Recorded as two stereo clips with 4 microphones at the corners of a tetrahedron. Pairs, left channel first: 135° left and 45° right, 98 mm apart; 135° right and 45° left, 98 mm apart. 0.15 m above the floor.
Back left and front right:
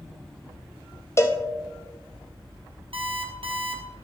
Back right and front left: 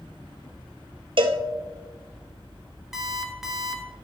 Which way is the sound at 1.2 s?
75° left.